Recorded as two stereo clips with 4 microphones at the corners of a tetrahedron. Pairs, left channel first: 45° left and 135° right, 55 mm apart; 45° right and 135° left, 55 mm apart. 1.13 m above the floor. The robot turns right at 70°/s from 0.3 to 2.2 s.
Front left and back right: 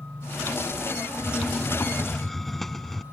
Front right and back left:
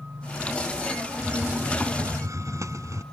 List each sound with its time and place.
1.2 s a hiss: 60° left; by 3.0 s 130° left